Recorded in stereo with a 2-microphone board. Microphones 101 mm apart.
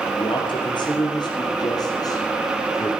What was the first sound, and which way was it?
A man speaking, 55° left (ahead or behind).